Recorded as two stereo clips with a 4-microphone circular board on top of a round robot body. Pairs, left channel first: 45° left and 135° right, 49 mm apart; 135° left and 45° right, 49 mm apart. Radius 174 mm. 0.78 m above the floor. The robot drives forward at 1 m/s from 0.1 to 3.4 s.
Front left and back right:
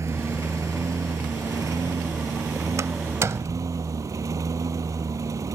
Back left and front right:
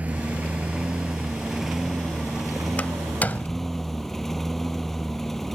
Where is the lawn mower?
105° right; by 5.5 s 140° right.